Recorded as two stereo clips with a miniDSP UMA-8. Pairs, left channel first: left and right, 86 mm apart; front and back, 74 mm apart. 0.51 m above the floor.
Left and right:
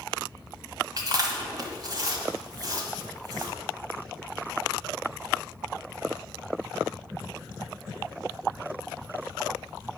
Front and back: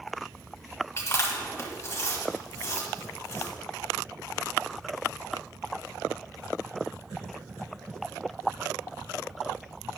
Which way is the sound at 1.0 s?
50° right.